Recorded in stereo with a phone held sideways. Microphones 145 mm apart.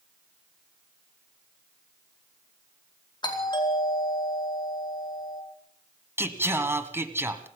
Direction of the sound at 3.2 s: 30° left (ahead or behind).